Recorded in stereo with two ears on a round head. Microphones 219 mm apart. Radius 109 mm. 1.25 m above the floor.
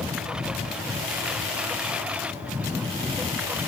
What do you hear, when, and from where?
0.0 s a lawn mower: 5° right (ahead or behind)